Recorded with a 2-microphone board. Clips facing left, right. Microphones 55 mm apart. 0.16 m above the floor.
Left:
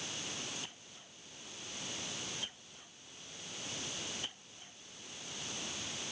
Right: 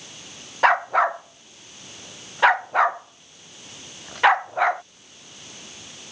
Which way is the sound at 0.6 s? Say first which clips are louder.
Right 36 dB; 85° right.